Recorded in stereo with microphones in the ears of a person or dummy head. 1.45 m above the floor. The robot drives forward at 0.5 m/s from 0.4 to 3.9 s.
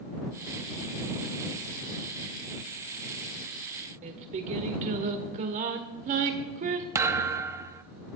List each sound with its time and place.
4.0 s singing: 45° right (ahead or behind), 1.6 m
7.0 s a thud: 20° right (ahead or behind), 0.9 m